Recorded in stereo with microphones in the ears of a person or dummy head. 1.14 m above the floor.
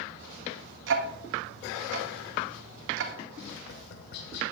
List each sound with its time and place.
0.9 s ticking: 65° right (ahead or behind), 1.9 m
3.5 s tapping: 65° left (ahead or behind), 2.5 m